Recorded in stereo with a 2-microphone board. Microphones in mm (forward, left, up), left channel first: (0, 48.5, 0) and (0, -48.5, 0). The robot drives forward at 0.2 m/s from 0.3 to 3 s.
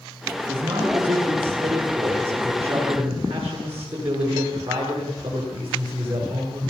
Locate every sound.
0.5 s a man speaking: 80° right, 8.5 m